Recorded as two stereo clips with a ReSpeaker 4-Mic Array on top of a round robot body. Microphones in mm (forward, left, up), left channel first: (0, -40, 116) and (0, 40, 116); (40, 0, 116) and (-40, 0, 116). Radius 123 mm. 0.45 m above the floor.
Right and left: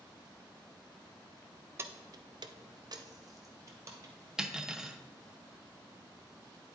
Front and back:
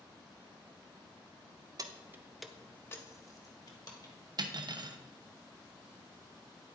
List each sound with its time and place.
1.8 s keys jangling: 145° left, 0.7 m; by 4.3 s 35° left, 1.7 m
4.4 s cutlery clinking: 175° left, 0.7 m